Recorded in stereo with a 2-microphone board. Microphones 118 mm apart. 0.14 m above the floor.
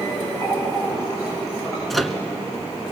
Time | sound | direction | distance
0.4 | a running tap | 25° left (ahead or behind) | 9 m
1.9 | a microwave | centre (ahead or behind) | 1.2 m